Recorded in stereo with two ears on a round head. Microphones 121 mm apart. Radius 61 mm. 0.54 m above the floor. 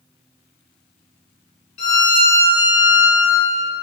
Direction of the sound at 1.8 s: 55° left (ahead or behind).